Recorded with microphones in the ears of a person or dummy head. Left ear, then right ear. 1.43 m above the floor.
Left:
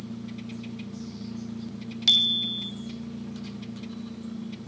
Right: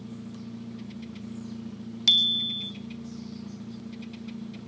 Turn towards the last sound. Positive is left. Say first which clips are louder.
# even
turn(degrees=-5)  # may be behind; listen again after turning